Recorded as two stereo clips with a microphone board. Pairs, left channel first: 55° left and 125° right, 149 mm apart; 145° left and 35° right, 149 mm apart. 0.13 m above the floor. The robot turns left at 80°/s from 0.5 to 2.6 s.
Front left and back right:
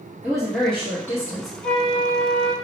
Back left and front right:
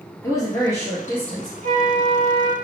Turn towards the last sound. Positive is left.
turn(degrees=-95)